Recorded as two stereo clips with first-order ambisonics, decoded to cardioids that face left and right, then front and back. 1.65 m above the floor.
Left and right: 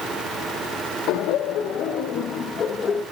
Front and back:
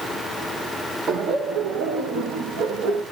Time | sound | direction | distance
1.1 | laughter | 115° left | 1.4 m